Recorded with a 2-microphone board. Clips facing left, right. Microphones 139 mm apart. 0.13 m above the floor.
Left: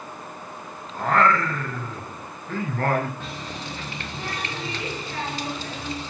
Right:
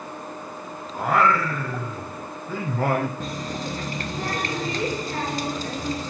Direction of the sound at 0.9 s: 10° right (ahead or behind).